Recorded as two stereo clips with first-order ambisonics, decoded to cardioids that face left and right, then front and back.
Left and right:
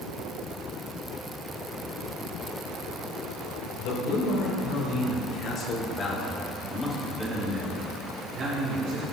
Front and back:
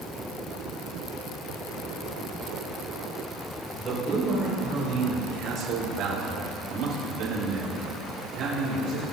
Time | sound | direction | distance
3.8 | a man speaking | 115° left | 4 m